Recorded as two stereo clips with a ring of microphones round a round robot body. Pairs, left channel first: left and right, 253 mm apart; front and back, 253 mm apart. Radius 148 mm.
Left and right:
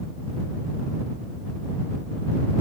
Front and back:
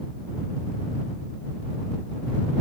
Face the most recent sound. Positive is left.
No sound to turn to.